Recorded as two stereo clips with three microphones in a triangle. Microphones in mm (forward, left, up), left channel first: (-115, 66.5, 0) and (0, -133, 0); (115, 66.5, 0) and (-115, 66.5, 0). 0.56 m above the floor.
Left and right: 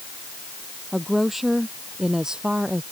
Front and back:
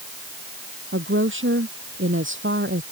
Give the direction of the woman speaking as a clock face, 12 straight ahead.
5 o'clock.